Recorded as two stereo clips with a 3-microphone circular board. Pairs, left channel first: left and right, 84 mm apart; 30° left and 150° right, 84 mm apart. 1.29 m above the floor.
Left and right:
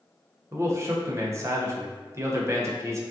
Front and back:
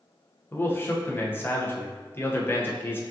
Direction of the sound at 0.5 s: 35° right.